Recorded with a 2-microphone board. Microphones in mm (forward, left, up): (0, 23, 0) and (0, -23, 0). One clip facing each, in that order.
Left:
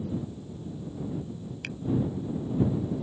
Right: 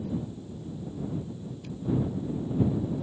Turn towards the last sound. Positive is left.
turn(degrees=75)  # may be behind; listen again after turning